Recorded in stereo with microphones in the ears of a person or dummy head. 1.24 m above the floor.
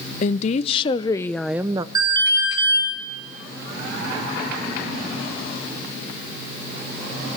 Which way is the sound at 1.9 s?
25° right (ahead or behind).